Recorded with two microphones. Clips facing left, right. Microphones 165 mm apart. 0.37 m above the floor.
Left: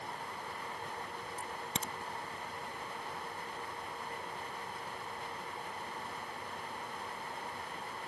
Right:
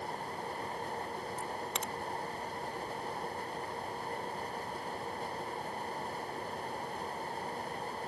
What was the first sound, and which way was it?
A crack, 35° left (ahead or behind).